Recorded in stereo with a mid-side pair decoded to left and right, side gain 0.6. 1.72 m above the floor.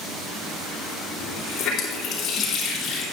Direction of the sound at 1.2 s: 65° left.